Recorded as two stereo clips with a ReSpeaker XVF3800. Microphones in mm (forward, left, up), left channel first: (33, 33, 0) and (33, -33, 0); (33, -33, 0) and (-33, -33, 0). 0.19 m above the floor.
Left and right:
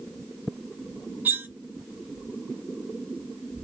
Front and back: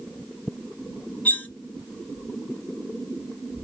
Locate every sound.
1.2 s cutlery clinking: 50° right, 0.7 m